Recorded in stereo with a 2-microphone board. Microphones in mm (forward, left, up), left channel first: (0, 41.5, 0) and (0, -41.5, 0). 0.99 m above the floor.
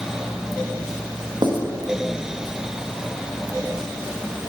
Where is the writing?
65° right (ahead or behind), 1.3 m.